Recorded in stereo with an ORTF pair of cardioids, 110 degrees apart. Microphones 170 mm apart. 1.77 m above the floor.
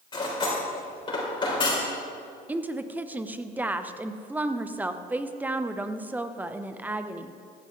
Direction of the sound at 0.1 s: 30° left.